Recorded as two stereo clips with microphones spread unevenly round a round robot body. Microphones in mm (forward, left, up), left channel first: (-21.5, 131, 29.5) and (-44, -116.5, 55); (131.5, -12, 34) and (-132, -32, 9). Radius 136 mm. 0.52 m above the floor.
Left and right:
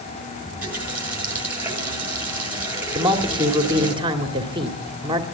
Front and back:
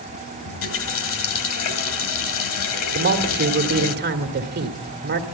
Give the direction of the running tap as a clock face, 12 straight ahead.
12 o'clock.